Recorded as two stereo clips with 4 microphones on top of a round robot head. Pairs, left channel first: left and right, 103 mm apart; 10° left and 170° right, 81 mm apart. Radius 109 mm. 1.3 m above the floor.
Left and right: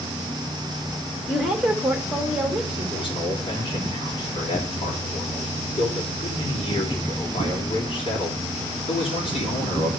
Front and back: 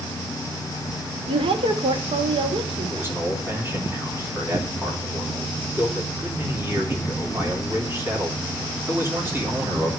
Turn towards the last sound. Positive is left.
turn(degrees=130)